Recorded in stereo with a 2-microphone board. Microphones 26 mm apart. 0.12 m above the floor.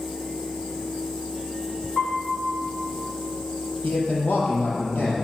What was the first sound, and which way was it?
A piano, 55° left (ahead or behind).